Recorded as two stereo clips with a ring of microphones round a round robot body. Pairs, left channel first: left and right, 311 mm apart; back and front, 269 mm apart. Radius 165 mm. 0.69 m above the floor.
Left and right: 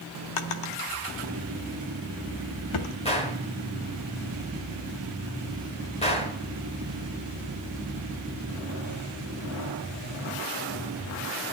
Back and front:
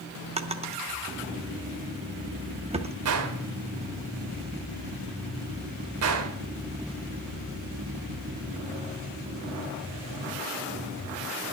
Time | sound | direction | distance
0.4 | a drawer | 70° left | 0.8 m
3.0 | a gunshot | 20° left | 1.3 m